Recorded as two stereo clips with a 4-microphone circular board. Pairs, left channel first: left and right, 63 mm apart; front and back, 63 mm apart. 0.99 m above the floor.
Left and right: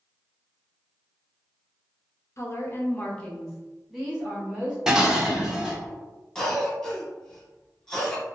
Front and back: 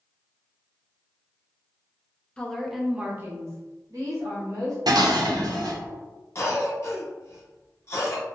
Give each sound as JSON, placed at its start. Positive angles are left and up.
{"t": 2.4, "sound": "a woman speaking", "azimuth_deg": 70, "distance_m": 0.6}
{"t": 4.9, "sound": "dishes clattering", "azimuth_deg": -170, "distance_m": 0.5}
{"t": 6.3, "sound": "a cough", "azimuth_deg": 10, "distance_m": 0.9}